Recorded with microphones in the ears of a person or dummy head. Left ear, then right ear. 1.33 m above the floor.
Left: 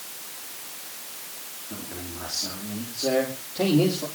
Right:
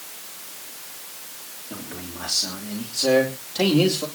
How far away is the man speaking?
About 3 m.